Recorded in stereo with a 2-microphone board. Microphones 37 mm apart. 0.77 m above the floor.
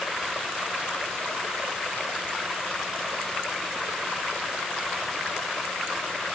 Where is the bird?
I don't hear a bird.